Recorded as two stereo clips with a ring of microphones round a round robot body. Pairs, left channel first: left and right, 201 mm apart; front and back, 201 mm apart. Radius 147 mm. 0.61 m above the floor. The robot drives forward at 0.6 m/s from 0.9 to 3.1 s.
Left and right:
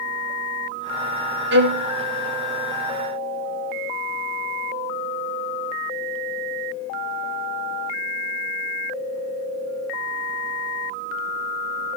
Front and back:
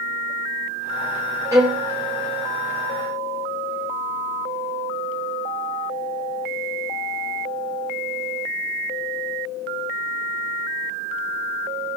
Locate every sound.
1.5 s a violin: 105° right, 1.0 m; by 1.9 s 120° right, 1.0 m